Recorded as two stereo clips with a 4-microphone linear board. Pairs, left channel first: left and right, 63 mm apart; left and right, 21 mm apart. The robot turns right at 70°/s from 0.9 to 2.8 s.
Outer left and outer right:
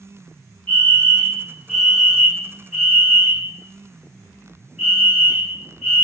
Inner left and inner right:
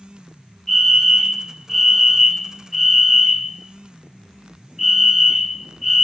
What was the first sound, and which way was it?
A fire alarm, 20° left (ahead or behind).